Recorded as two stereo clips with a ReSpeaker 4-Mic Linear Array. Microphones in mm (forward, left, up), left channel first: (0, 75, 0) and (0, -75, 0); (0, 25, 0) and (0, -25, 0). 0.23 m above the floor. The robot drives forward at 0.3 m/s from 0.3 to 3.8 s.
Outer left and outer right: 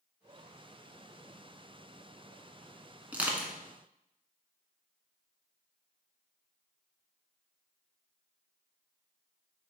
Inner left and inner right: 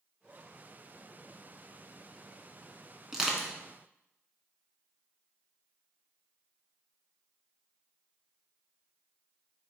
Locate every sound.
3.1 s crushing: 10° right (ahead or behind), 1.4 m